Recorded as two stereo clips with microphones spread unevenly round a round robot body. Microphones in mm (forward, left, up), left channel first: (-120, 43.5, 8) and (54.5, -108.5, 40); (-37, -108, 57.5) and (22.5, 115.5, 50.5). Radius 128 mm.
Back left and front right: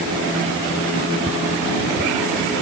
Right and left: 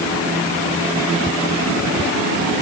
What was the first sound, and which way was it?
Only background noise.